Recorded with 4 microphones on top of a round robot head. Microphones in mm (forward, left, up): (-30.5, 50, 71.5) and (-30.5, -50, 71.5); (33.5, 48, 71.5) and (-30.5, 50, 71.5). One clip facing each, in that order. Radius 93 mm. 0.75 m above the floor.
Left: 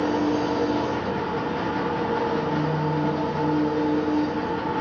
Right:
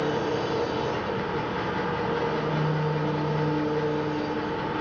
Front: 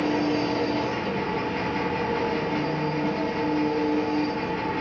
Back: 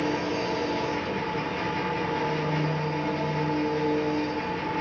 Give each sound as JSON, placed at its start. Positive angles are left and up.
{"t": 0.0, "sound": "an engine running", "azimuth_deg": 30, "distance_m": 4.0}